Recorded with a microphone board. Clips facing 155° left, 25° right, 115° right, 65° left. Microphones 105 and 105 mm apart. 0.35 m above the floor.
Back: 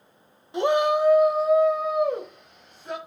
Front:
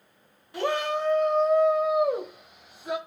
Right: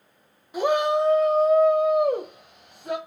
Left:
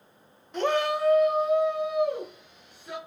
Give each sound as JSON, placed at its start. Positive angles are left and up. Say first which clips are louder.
{"t": 0.5, "sound": "a shout", "louder": "back 6 dB, right 4 dB", "azimuth_deg": 180, "distance_m": 0.9}